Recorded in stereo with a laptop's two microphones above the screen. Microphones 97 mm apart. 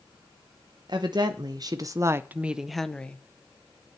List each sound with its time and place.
0.9 s a woman speaking: 50° right (ahead or behind), 0.9 m; by 3.2 s 15° left (ahead or behind), 0.7 m